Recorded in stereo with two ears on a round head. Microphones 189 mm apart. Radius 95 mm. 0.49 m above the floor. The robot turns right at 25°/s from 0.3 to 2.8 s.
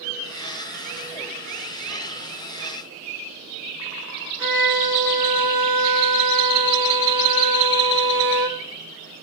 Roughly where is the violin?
Centre.